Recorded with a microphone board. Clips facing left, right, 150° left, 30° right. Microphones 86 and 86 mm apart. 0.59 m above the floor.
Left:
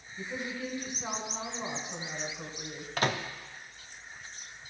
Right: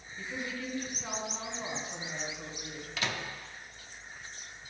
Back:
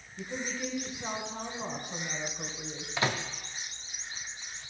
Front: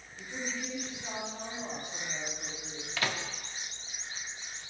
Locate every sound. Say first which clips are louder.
0.2 s a woman speaking: left 2 dB, back 3 dB; 155° left, 2 m
3.0 s a microwave: left 6 dB, back 3 dB; 95° left, 0.5 m